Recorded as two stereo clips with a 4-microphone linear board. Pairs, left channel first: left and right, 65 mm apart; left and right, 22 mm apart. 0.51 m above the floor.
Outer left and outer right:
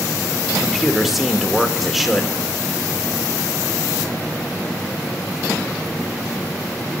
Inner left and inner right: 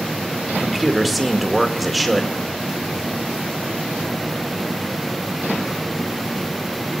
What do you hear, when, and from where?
0.5 s a man speaking: centre (ahead or behind), 1.8 m